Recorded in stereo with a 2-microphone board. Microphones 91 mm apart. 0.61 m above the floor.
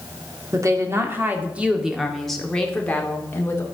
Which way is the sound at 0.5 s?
35° right (ahead or behind).